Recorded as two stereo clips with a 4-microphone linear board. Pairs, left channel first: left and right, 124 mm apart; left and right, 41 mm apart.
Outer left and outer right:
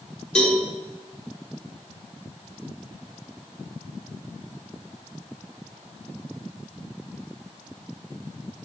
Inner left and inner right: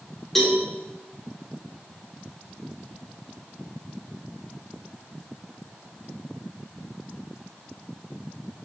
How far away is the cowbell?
About 3.5 m.